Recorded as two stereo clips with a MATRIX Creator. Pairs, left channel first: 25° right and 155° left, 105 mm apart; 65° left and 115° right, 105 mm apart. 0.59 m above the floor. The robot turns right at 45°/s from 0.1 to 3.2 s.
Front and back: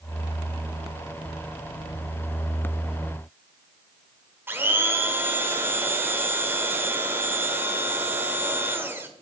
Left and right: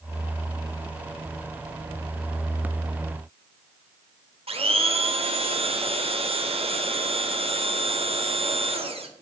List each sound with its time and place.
4.5 s a blender: 135° right, 1.1 m